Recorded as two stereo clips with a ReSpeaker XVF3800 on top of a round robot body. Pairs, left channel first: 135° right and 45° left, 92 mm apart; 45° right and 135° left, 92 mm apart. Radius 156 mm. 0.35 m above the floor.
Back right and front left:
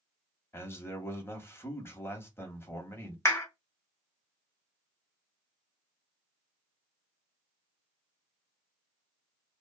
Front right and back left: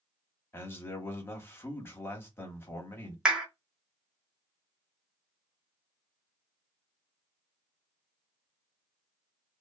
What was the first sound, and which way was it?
A man speaking, 90° right.